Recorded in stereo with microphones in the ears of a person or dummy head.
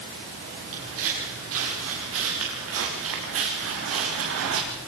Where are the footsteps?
75° right (ahead or behind), 9 m.